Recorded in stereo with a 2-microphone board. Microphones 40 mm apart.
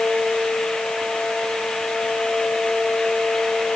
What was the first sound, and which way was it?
Only background noise.